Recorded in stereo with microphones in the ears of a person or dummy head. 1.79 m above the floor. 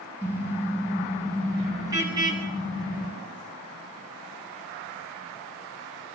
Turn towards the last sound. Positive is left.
turn(degrees=-25)  # may be behind; listen again after turning